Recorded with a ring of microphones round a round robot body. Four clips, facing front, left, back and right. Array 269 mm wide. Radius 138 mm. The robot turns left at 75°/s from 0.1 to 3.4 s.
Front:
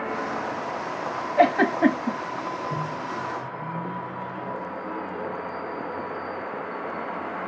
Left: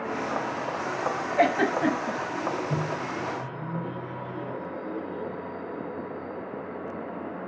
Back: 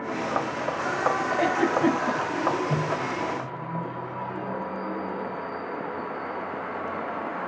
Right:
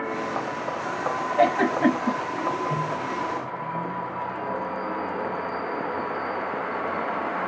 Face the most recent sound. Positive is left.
turn(degrees=100)